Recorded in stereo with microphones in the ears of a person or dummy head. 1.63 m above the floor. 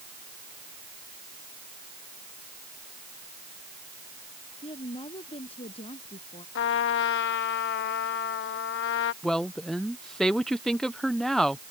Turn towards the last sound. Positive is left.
turn(degrees=-5)  # may be behind; listen again after turning